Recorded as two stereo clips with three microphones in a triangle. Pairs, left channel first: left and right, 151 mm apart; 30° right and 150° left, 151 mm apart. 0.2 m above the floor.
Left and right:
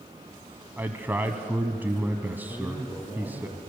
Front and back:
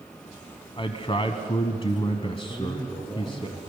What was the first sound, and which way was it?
A man speaking, 20° right.